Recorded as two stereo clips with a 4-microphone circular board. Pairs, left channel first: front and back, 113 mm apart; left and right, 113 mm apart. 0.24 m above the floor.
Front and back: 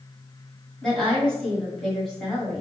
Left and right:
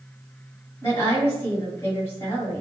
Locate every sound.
0.8 s a woman speaking: 80° left, 1.5 m